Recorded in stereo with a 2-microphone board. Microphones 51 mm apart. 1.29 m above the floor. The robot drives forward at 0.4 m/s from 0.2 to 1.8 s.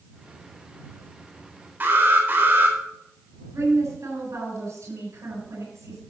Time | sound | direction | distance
1.8 | an alarm | 40° right (ahead or behind) | 3.5 m
3.5 | a woman speaking | 70° right (ahead or behind) | 7.5 m